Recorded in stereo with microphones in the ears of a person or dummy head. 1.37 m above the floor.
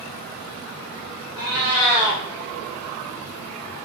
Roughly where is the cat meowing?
Right.